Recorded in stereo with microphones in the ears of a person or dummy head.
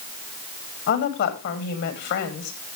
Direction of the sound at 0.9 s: 65° left (ahead or behind).